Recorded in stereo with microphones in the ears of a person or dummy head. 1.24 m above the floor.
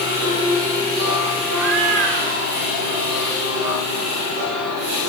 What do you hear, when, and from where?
1.5 s a cat meowing: 60° right (ahead or behind), 2 m; by 3.3 s 55° right (ahead or behind), 2.5 m